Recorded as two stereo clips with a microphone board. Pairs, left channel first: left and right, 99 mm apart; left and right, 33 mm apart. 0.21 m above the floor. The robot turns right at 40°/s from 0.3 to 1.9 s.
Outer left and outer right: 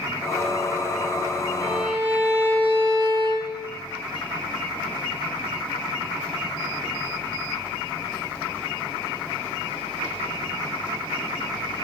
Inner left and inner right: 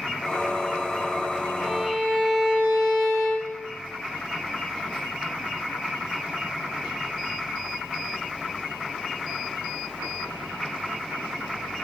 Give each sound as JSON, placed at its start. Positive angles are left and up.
{"t": 1.6, "sound": "a violin", "side_deg": -70, "distance_m": 3.0}